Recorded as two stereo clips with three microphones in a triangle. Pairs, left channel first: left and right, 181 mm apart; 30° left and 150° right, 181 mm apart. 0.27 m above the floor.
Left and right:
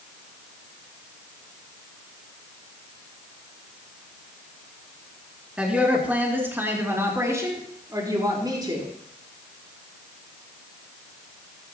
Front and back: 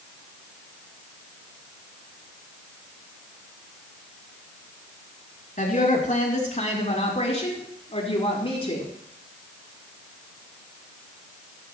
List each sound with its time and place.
5.6 s a woman speaking: 5° right, 4 m; by 8.9 s 25° right, 5 m